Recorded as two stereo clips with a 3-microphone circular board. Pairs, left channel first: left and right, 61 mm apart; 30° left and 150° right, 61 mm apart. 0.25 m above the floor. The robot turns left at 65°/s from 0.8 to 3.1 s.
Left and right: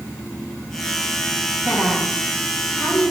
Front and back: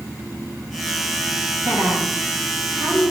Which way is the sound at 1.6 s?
135° right.